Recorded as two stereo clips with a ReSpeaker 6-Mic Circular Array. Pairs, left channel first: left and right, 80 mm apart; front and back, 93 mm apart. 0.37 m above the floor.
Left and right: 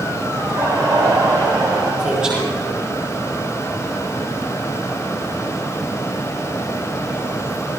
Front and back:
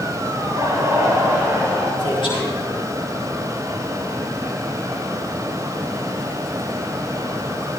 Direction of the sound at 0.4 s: 135° right.